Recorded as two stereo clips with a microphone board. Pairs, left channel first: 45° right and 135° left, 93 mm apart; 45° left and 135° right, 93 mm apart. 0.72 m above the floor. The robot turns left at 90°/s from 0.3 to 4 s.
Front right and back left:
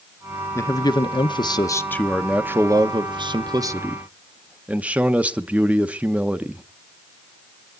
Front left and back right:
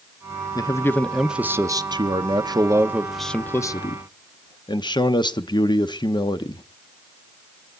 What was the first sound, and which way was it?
A man speaking, 15° left.